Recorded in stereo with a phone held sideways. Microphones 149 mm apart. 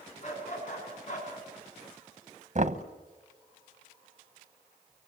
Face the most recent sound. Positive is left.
turn(degrees=-55)  # may be behind; listen again after turning